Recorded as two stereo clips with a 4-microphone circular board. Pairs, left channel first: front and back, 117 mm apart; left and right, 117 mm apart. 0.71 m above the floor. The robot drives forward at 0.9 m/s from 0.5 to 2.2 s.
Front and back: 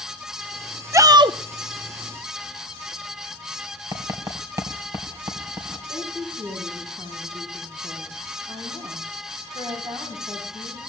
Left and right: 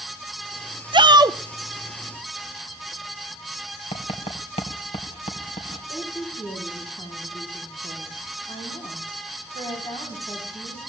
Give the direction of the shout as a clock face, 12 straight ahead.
4 o'clock.